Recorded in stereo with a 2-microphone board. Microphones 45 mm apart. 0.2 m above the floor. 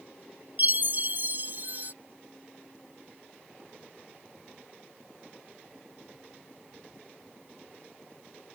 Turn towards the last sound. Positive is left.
turn(degrees=-45)  # may be behind; listen again after turning